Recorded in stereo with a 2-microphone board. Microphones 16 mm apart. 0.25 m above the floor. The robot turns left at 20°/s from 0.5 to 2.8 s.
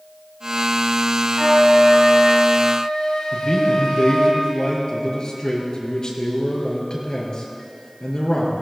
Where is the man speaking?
45° left (ahead or behind), 5 m.